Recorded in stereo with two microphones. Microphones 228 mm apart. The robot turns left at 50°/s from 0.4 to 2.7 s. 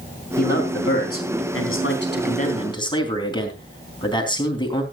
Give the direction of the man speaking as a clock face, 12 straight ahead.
7 o'clock.